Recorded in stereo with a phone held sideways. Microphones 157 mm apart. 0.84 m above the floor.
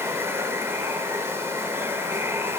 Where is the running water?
15° right (ahead or behind), 3 m.